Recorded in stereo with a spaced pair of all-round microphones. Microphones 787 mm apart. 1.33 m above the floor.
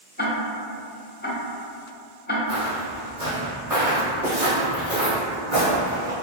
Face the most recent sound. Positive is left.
turn(degrees=-50)  # may be behind; listen again after turning